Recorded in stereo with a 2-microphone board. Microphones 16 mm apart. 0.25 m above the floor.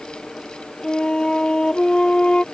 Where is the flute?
50° left (ahead or behind).